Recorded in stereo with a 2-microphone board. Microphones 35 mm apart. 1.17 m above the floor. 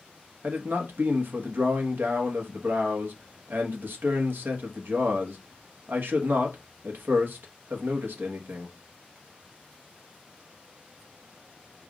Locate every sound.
0.4 s a man speaking: 80° right, 1.1 m